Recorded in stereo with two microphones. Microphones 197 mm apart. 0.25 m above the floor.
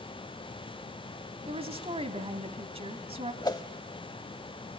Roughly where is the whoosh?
Left.